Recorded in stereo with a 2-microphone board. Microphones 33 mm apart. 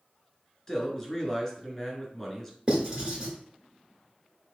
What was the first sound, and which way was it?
A man speaking, 15° left (ahead or behind).